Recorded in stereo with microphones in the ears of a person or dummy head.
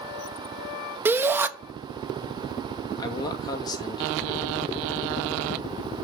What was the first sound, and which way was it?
A shout, 15° right (ahead or behind).